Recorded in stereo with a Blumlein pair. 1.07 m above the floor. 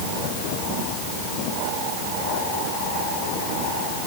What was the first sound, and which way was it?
Only background noise.